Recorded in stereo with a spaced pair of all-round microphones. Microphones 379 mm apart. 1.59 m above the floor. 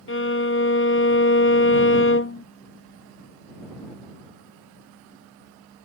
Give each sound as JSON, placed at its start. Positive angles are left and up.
{"t": 0.1, "sound": "a violin", "side_deg": 35}